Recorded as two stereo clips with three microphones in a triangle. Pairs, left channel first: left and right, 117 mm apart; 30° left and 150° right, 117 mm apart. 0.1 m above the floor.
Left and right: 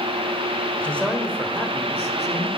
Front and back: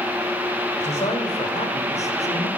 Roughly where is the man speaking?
Ahead.